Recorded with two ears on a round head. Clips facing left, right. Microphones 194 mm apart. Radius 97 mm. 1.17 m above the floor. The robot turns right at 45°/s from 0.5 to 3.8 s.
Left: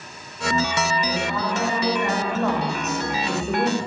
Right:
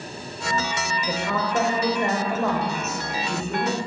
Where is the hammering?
No hammering in this recording.